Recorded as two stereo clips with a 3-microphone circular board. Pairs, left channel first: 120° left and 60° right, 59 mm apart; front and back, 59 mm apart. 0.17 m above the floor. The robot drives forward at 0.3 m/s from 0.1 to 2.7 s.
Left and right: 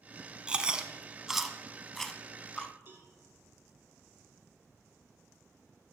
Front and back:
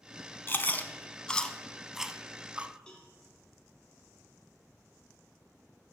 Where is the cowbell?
65° right, 1.4 m.